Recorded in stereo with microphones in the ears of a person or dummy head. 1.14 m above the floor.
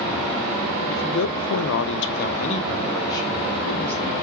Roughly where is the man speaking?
Left.